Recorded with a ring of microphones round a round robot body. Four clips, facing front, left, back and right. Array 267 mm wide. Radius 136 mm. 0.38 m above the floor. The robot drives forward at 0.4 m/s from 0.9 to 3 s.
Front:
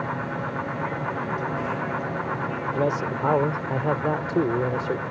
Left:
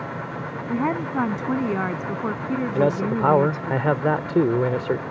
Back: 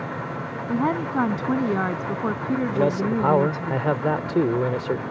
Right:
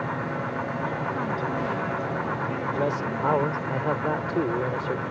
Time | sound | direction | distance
0.7 | a woman speaking | 140° left | ?
2.7 | a man speaking | 90° left | ?